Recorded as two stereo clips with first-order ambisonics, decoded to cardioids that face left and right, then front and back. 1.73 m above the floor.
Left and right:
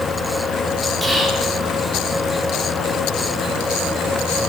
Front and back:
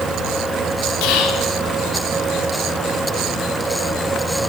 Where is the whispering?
5° right, 1.0 m.